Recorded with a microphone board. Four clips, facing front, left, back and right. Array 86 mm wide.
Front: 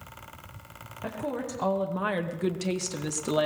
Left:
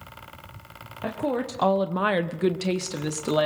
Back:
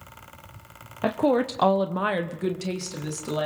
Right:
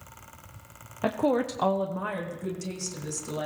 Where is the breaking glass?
I don't hear breaking glass.